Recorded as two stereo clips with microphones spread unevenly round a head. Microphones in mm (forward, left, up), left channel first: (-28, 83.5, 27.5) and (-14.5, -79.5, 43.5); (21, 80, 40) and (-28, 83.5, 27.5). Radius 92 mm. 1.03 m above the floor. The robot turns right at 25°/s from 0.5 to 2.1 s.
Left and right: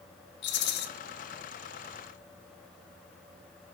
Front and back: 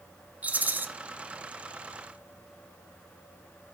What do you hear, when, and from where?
0.4 s a rattle: 110° left, 0.9 m; by 0.9 s 120° left, 0.9 m